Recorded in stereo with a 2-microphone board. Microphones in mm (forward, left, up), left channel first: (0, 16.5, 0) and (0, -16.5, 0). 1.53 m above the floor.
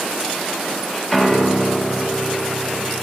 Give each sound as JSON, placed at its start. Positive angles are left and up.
{"t": 1.1, "sound": "a piano", "side_deg": 0, "distance_m": 1.3}